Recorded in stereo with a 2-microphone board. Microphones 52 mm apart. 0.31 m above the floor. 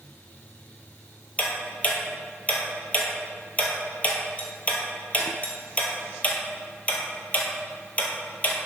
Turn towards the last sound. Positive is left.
turn(degrees=30)  # may be behind; listen again after turning